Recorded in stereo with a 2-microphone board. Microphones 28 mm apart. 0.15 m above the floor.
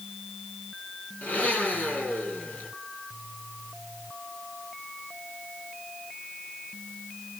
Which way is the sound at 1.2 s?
70° left (ahead or behind).